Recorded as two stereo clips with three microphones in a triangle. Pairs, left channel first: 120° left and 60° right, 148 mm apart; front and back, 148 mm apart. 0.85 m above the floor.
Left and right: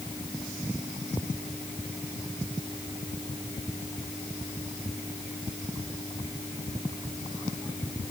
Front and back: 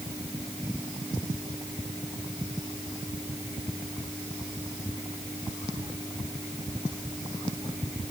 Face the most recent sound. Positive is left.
No sound to turn to.